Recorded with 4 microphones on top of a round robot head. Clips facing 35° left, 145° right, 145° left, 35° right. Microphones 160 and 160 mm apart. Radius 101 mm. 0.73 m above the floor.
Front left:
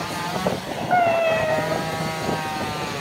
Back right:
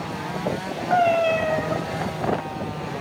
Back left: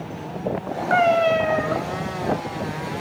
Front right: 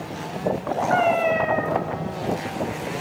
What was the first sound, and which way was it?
A cat meowing, 115° left.